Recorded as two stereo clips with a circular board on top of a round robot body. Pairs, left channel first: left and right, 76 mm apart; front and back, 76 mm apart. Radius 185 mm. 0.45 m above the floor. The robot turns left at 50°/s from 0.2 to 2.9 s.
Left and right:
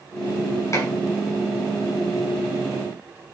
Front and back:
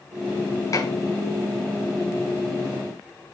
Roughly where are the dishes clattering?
Ahead left.